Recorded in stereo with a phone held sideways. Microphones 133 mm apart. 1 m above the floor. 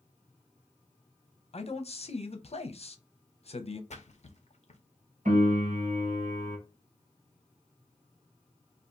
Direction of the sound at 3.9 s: 55° left (ahead or behind).